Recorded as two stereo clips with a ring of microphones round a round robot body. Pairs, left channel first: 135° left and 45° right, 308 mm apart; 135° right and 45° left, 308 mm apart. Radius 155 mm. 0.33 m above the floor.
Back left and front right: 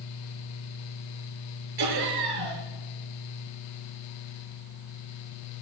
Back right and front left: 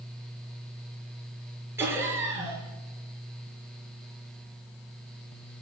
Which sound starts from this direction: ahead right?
Laughter, at 1.8 s.